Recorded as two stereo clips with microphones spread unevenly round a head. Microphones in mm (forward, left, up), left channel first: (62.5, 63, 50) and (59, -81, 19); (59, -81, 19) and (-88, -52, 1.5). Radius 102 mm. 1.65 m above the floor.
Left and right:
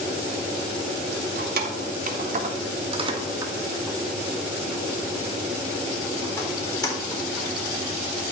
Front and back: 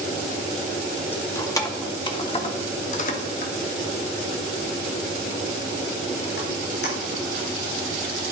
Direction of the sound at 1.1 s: 85° right.